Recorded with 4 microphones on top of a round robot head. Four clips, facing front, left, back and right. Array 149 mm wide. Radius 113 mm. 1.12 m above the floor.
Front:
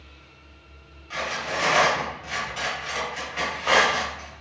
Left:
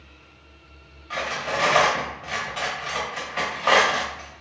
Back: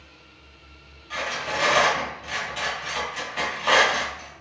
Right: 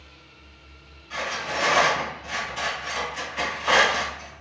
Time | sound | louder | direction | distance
1.1 | cutlery clinking | left 2 dB, even | 105° left | 1.3 m